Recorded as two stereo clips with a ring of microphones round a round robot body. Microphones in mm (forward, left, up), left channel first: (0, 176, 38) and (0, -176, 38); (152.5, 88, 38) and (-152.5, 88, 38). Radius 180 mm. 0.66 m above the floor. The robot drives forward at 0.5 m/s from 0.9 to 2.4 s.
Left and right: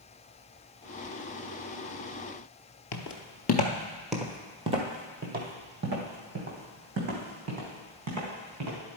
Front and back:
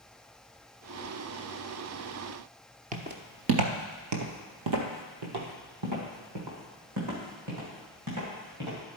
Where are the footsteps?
120° left, 0.9 m; by 8.8 s 140° right, 3.5 m.